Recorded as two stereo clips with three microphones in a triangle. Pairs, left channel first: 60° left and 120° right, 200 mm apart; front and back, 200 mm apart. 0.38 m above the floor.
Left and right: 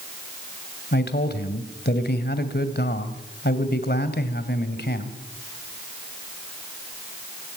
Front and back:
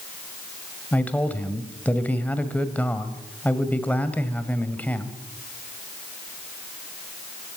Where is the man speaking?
80° left, 2 m.